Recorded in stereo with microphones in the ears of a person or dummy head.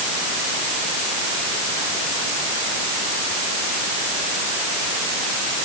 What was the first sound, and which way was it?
Only background noise.